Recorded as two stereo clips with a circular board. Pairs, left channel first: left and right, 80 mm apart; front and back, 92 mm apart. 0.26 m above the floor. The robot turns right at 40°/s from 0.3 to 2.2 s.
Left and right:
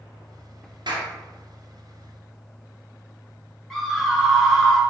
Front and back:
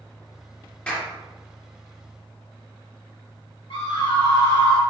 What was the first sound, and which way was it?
A clap, 75° right.